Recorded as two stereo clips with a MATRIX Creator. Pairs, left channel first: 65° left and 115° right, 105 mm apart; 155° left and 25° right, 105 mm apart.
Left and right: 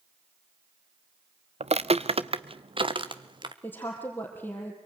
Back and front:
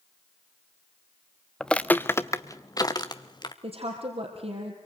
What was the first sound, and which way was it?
Footsteps, 115° right.